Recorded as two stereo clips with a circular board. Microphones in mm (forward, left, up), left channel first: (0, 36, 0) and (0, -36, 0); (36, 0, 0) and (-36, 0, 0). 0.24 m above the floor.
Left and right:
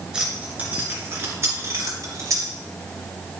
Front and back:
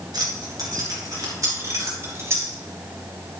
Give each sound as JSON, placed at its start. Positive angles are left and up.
{"t": 0.1, "sound": "keys jangling", "azimuth_deg": -170, "distance_m": 2.5}